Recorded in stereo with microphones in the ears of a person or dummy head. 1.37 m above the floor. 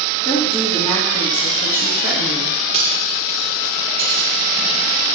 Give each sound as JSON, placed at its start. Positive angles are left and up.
{"t": 0.2, "sound": "a woman speaking", "side_deg": 20, "distance_m": 2.5}
{"t": 2.7, "sound": "cutlery clinking", "side_deg": -30, "distance_m": 2.0}